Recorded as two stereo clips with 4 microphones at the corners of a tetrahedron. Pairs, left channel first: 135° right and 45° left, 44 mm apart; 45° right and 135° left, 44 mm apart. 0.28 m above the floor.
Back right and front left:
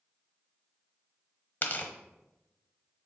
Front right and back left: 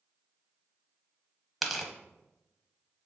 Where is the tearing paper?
140° right, 0.9 m.